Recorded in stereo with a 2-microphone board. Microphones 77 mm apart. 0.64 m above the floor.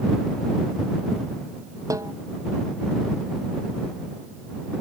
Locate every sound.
1.9 s a snare drum: 45° right (ahead or behind)